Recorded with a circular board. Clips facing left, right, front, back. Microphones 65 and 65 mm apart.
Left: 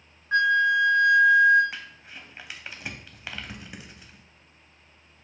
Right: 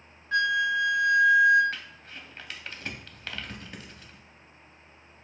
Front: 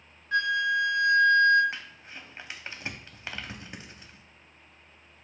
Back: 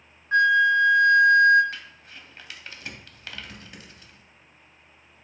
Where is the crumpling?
25° left, 0.5 m.